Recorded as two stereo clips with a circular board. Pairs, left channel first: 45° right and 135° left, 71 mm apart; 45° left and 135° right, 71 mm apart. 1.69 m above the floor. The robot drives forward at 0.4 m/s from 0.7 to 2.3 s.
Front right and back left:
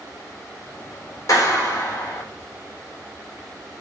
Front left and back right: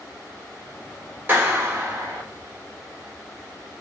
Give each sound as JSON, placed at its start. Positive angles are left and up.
{"t": 1.3, "sound": "a clap", "azimuth_deg": -75, "distance_m": 1.2}